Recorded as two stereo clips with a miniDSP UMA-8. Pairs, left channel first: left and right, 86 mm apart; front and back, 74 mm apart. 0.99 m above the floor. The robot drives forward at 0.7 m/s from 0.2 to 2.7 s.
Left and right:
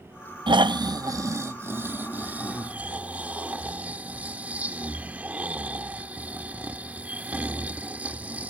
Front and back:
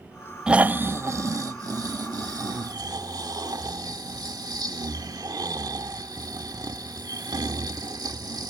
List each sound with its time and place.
0.5 s snoring: 100° right; by 8.5 s 160° right